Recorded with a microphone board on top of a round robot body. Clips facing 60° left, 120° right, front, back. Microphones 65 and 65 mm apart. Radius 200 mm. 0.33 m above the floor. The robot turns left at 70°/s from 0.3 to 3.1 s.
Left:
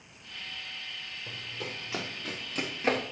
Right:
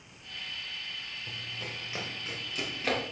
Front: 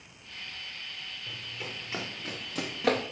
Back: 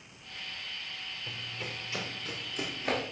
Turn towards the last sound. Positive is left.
turn(degrees=-25)